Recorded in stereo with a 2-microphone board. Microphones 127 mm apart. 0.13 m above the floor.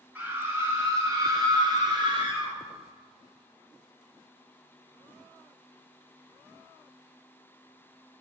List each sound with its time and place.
0.1 s a scream: 15° right (ahead or behind), 1.1 m; by 2.5 s 35° right (ahead or behind), 1.7 m